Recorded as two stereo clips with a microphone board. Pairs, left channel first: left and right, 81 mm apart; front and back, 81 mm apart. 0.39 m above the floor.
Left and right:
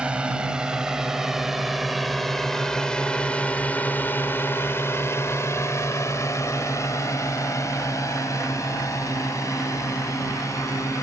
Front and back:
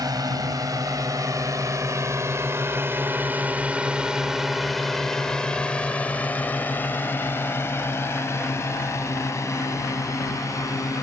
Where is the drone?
165° right; by 11.0 s 45° left.